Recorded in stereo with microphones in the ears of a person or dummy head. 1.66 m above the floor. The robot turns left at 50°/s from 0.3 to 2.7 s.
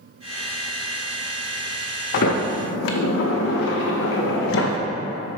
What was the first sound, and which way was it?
A sliding door, 45° left (ahead or behind).